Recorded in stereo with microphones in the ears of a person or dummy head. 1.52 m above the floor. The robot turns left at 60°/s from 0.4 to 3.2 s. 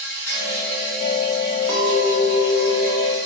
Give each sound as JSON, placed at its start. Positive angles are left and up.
{"t": 0.0, "sound": "an insect", "side_deg": 15, "distance_m": 1.2}
{"t": 1.7, "sound": "a clink", "azimuth_deg": -30, "distance_m": 0.6}